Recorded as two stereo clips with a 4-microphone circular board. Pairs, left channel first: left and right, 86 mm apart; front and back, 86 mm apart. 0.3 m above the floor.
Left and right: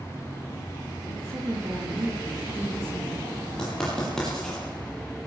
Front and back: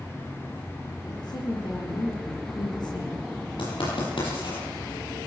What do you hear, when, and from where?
1.1 s a woman speaking: 30° right, 7.5 m
3.6 s writing: 10° left, 10 m